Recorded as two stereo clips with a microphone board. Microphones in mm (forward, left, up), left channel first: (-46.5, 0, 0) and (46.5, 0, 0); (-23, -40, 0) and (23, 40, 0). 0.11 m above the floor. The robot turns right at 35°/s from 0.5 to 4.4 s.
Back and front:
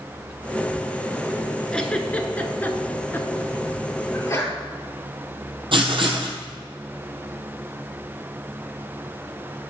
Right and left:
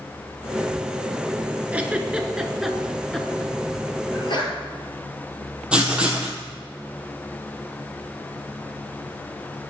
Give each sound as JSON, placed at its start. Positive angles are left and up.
{"t": 1.7, "sound": "a giggle", "azimuth_deg": 110, "distance_m": 0.9}
{"t": 4.1, "sound": "a sneeze", "azimuth_deg": -135, "distance_m": 2.0}
{"t": 5.7, "sound": "writing", "azimuth_deg": -20, "distance_m": 1.4}